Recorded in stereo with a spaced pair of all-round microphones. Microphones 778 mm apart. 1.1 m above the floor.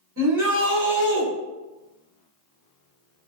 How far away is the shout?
About 1.6 m.